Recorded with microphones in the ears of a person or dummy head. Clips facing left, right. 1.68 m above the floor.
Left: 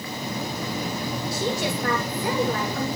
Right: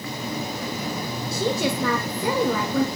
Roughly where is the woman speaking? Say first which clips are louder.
Right 4 dB; right.